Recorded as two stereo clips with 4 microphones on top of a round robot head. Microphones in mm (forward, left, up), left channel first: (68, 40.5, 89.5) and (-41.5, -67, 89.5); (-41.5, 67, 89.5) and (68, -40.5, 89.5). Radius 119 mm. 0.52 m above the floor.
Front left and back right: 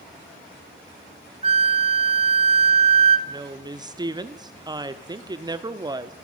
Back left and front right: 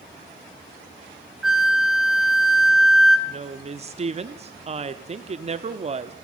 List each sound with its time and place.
1.4 s a flute: 130° right, 1.3 m
3.3 s a woman speaking: 75° right, 1.2 m